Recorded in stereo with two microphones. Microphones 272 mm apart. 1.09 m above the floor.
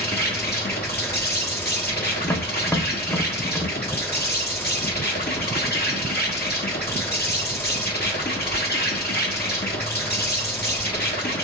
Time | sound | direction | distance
0.0 | an insect | 35° left (ahead or behind) | 1.3 m
2.2 | tapping | 5° left (ahead or behind) | 0.8 m